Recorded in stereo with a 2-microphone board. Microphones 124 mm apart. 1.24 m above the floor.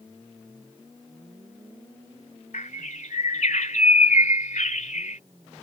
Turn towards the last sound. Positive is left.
turn(degrees=75)  # may be behind; listen again after turning